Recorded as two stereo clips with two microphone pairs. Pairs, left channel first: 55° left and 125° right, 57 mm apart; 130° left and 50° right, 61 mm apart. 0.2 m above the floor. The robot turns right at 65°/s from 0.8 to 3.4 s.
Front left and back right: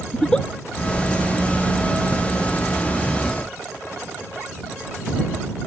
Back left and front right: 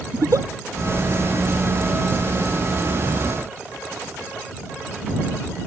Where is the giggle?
20° right.